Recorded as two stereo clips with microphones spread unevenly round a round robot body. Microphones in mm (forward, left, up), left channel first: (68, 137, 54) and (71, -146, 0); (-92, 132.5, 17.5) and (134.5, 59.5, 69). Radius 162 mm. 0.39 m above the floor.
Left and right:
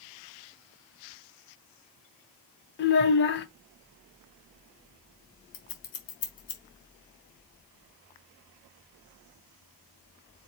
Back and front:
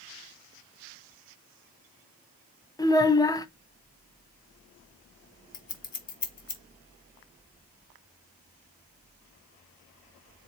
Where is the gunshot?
No gunshot in this recording.